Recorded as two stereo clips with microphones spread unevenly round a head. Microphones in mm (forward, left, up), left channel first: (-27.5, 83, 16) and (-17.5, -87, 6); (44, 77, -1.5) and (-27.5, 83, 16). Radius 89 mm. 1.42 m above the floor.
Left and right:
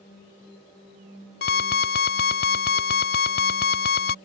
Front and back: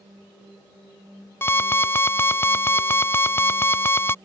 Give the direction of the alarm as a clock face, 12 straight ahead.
10 o'clock.